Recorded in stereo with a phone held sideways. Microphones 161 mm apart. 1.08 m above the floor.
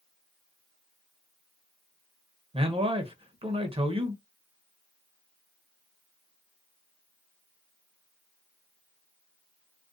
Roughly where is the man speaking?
Right.